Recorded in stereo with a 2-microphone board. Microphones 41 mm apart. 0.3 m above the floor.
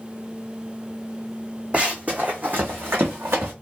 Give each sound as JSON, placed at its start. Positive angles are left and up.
{"t": 1.7, "sound": "running footsteps", "side_deg": -30, "distance_m": 1.0}